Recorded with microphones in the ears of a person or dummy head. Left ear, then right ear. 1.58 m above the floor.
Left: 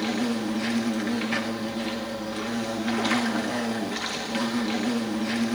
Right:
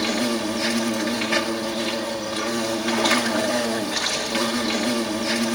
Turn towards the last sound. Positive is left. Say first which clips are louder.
# right 5 dB
turn(degrees=-5)  # may be behind; listen again after turning